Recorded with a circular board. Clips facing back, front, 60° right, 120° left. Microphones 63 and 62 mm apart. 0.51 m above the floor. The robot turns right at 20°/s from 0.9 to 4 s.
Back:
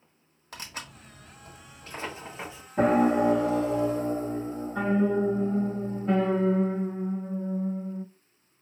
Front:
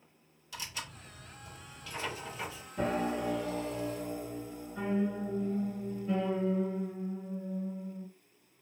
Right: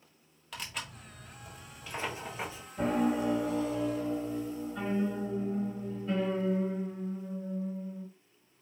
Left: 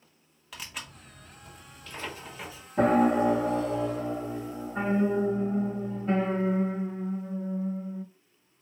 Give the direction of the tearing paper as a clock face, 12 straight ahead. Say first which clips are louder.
Back 2 dB, right 1 dB; 5 o'clock.